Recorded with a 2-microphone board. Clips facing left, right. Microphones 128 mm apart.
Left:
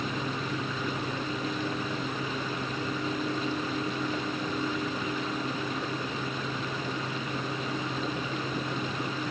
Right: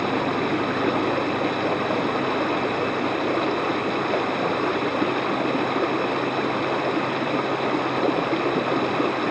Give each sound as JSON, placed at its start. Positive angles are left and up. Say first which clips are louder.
{"t": 0.0, "sound": "running water", "louder": "right 10 dB", "side_deg": -75}